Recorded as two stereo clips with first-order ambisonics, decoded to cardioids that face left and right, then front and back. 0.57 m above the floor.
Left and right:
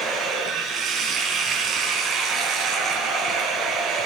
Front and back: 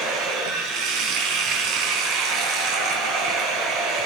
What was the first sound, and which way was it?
Running water, 155° right.